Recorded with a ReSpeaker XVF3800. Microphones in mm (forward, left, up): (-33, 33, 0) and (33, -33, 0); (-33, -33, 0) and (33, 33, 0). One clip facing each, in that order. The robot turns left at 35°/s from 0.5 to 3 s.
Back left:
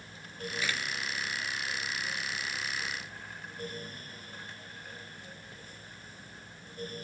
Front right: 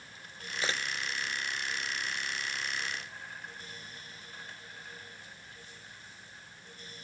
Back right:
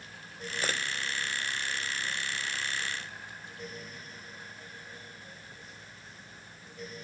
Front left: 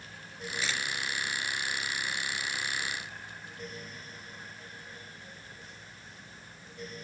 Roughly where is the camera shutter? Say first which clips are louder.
Front right 2 dB, back right 2 dB; right.